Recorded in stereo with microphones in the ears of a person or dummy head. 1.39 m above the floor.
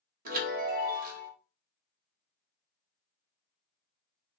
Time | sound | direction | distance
0.2 | a chime | 50° right (ahead or behind) | 0.8 m